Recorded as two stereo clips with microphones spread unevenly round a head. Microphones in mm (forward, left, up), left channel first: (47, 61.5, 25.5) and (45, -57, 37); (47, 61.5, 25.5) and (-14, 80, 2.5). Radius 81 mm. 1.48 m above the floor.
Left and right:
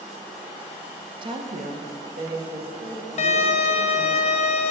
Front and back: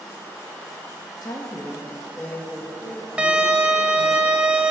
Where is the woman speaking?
45° right, 1.2 m; by 4.2 s 120° right, 4 m.